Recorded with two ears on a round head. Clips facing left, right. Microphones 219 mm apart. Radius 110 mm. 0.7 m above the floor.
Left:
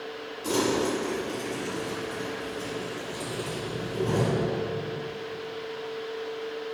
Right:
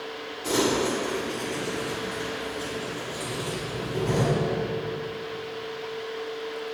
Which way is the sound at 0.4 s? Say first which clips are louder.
Right 1 dB; 25° left (ahead or behind).